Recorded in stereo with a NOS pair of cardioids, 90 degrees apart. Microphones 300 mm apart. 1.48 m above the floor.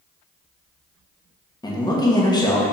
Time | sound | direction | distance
1.6 | a man speaking | 15° left | 1.1 m